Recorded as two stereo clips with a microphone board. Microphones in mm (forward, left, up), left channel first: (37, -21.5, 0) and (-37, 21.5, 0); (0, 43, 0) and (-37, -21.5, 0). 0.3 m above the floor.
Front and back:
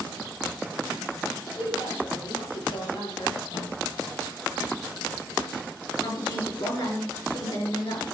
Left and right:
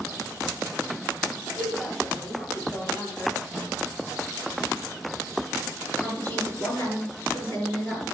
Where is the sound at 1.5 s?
25° right, 6.5 m.